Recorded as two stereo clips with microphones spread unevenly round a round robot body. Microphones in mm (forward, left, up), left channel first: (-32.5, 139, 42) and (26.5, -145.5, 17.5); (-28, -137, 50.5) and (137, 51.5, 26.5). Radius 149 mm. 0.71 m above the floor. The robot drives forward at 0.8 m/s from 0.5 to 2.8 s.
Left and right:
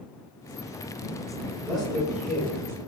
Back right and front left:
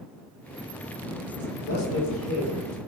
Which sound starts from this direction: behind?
A man speaking, at 1.6 s.